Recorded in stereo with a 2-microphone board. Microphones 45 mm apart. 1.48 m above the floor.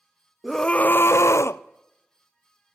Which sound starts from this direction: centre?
A scream, at 0.4 s.